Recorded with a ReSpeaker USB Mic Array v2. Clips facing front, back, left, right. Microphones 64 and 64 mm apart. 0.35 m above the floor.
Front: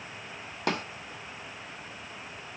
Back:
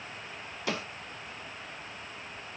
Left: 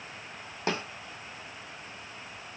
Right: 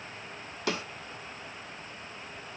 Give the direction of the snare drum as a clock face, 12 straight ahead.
11 o'clock.